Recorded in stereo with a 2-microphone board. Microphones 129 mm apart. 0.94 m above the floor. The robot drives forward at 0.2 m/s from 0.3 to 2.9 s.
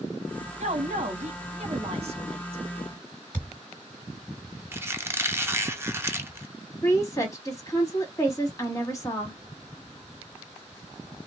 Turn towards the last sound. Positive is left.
turn(degrees=25)  # may be behind; listen again after turning